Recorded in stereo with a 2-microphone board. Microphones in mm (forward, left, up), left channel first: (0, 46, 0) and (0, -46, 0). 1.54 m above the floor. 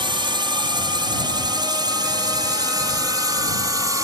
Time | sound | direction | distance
0.0 | a drone | 55° right (ahead or behind) | ?